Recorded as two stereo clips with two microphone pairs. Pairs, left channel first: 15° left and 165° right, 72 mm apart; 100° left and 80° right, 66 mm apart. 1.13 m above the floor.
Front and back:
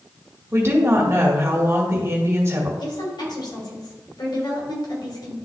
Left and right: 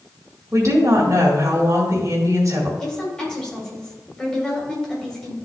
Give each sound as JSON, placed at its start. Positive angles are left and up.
{"t": 0.5, "sound": "a woman speaking", "azimuth_deg": -115, "distance_m": 1.8}
{"t": 2.8, "sound": "a woman speaking", "azimuth_deg": 25, "distance_m": 3.5}